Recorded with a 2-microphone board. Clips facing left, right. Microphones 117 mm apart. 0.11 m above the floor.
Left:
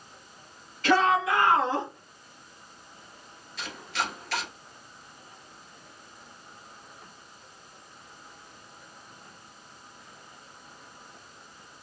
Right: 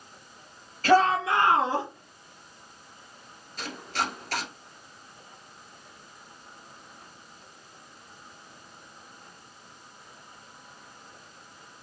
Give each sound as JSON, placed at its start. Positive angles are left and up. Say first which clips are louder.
{"t": 0.8, "sound": "a shout", "louder": "right 2 dB", "side_deg": -45, "distance_m": 2.5}
{"t": 3.6, "sound": "chopping", "louder": "right 2 dB", "side_deg": -45, "distance_m": 1.5}